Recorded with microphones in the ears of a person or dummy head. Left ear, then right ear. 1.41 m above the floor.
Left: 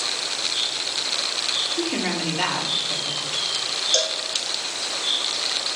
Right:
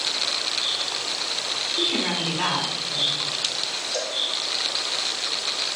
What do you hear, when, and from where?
1.8 s a woman speaking: 25° left (ahead or behind), 2.5 m
3.9 s a cowbell: 55° left (ahead or behind), 1.2 m